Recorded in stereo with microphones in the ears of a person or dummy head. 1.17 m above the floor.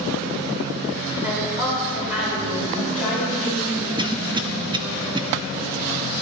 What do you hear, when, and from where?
1.2 s a woman speaking: 15° right (ahead or behind), 4.5 m; by 3.9 s centre (ahead or behind), 6 m
4.0 s a cough: 30° right (ahead or behind), 0.6 m